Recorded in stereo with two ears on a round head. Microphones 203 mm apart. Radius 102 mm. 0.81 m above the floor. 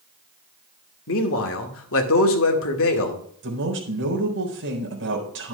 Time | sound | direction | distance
1.1 | a man speaking | 65° left (ahead or behind) | 2 m
3.4 | a man speaking | 60° right (ahead or behind) | 4 m